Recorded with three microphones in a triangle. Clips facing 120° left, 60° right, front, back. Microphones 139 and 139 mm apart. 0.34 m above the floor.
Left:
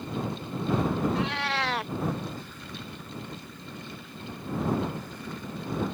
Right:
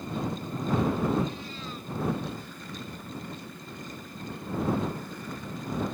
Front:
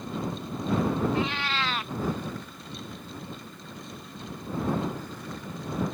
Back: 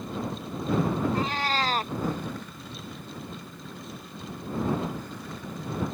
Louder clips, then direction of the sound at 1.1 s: Left 2 dB, back 1 dB; 130° left.